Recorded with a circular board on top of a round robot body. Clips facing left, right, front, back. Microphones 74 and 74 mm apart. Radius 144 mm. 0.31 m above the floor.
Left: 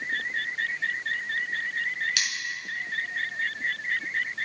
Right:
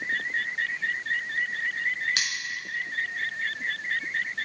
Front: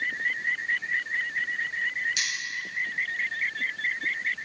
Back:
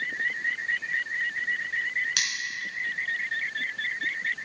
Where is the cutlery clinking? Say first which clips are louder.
Even, back 1 dB; 150° right, 3.5 m.